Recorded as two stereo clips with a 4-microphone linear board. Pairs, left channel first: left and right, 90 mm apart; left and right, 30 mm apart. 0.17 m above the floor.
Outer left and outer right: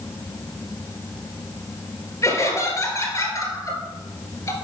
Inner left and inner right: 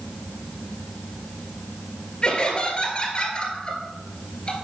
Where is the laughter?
35° left (ahead or behind), 2.5 m.